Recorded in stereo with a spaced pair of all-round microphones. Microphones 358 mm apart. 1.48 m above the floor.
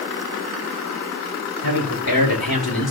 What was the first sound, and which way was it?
A man speaking, 80° left.